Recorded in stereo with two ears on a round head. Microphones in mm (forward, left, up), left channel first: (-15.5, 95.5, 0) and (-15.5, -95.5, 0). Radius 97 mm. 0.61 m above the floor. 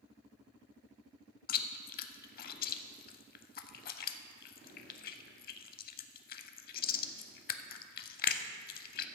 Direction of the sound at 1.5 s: 45° left (ahead or behind).